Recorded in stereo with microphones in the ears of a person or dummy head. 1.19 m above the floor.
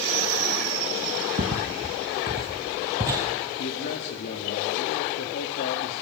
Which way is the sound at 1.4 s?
45° right (ahead or behind).